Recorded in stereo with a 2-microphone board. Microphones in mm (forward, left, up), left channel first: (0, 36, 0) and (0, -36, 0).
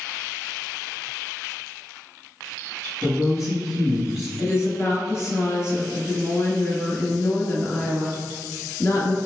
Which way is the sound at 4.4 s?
40° left (ahead or behind).